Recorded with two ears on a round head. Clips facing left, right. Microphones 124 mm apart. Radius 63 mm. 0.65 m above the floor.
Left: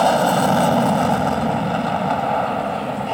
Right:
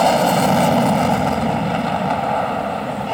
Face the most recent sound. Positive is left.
turn(degrees=0)  # may be behind; listen again after turning